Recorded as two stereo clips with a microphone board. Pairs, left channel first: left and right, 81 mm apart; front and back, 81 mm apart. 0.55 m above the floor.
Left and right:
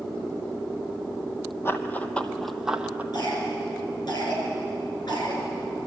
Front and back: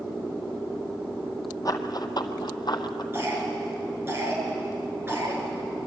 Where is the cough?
120° left, 6.5 m.